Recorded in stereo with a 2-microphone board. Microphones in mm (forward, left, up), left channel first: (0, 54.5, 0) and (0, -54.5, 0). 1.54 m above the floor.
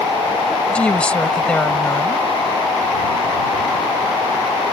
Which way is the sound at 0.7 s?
10° left (ahead or behind).